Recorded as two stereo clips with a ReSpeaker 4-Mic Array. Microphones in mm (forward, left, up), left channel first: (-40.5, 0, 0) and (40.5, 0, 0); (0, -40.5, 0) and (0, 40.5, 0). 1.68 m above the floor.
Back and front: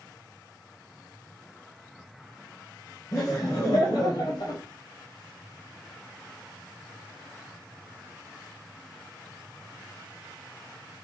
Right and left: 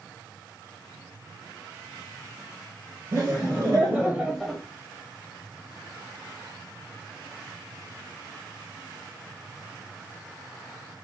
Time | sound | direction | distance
3.1 | laughter | 145° left | 1.8 m